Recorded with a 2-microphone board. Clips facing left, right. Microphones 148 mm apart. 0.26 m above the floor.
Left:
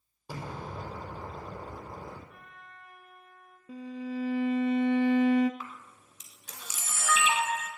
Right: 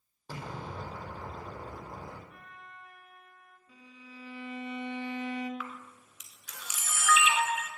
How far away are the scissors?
I don't hear scissors.